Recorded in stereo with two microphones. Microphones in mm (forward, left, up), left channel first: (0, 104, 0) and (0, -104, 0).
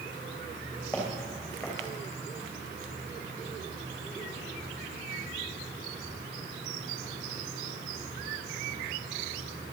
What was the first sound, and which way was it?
Footsteps, centre (ahead or behind).